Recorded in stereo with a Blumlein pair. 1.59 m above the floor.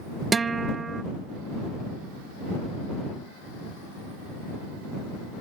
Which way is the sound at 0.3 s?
15° right.